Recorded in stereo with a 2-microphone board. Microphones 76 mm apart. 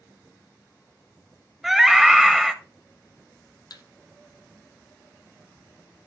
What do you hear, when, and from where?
1.6 s a scream: 5° right (ahead or behind), 1.1 m
3.7 s a thud: 60° left (ahead or behind), 0.9 m